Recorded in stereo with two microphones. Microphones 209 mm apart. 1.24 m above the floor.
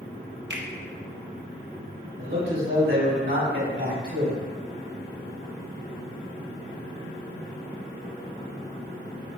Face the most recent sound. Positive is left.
turn(degrees=-70)  # may be behind; listen again after turning